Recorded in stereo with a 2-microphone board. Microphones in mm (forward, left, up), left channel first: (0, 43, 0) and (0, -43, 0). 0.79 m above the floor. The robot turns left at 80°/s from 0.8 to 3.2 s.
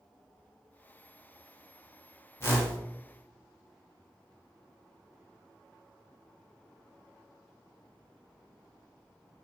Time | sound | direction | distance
2.4 | a whoosh | 30° left (ahead or behind) | 0.8 m